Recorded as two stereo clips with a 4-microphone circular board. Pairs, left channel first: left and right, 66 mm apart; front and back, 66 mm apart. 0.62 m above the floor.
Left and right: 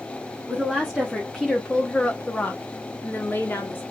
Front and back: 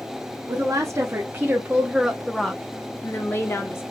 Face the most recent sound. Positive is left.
turn(degrees=40)